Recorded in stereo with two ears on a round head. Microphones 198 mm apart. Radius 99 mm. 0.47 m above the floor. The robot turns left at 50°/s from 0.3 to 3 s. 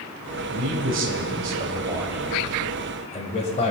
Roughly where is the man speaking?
Right.